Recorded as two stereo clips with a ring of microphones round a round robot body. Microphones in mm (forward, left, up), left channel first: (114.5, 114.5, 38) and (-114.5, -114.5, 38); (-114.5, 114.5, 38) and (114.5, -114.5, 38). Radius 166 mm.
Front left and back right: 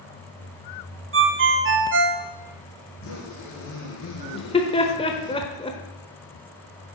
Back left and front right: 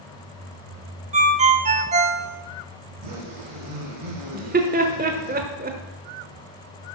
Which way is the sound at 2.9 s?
10° right.